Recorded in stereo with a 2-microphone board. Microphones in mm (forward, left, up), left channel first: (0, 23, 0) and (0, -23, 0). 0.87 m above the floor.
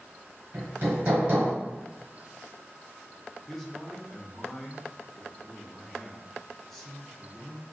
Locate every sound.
0.5 s hammering: 40° right (ahead or behind), 1.5 m
3.5 s a man speaking: 5° left (ahead or behind), 0.7 m